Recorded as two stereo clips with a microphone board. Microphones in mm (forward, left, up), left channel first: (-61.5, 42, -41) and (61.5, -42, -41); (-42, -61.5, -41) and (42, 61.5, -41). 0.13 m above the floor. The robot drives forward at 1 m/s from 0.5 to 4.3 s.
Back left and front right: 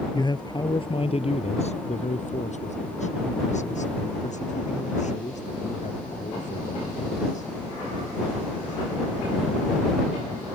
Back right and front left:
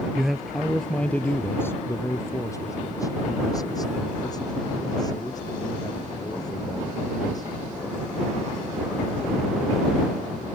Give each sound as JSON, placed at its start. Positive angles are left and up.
{"t": 0.1, "sound": "a man speaking", "azimuth_deg": 140}